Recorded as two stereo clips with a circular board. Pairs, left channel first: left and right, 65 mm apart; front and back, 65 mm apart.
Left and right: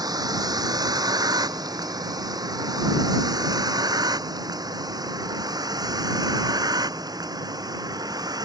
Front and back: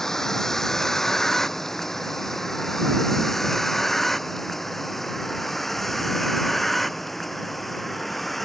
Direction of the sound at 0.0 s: 85° right.